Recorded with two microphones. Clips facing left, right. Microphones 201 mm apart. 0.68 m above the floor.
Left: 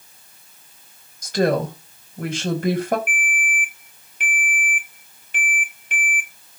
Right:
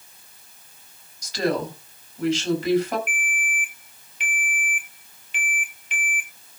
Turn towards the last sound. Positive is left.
turn(degrees=55)  # may be behind; listen again after turning